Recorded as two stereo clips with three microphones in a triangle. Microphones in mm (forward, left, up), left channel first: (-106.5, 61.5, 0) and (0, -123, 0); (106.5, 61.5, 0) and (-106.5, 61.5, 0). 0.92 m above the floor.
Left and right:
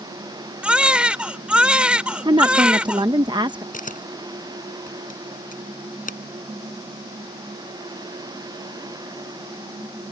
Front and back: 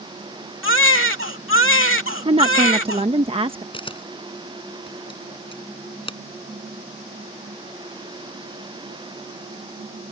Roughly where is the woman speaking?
Behind right.